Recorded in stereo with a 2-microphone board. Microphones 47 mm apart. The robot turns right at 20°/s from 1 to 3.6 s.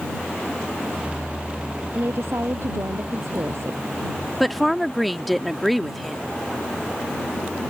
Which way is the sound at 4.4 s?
Centre (ahead or behind).